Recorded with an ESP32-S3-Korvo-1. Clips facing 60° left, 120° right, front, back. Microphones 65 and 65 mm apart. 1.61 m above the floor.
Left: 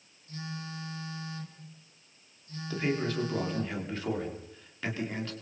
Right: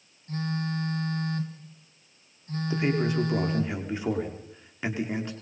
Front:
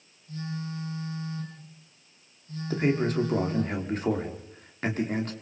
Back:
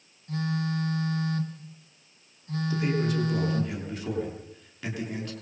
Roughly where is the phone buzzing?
Behind.